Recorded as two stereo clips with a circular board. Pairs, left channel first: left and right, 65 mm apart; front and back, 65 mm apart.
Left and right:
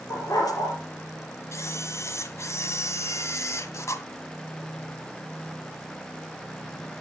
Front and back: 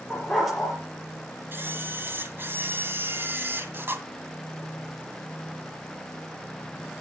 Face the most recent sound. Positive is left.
turn(degrees=125)